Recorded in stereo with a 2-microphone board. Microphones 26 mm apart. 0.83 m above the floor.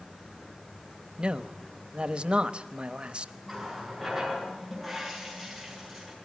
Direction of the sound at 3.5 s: 5° left (ahead or behind).